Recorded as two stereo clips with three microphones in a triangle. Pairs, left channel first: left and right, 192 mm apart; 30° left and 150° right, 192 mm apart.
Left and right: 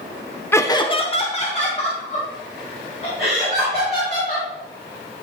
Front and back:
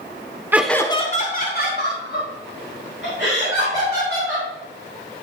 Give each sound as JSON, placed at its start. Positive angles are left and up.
{"t": 0.5, "sound": "laughter", "azimuth_deg": 150, "distance_m": 0.9}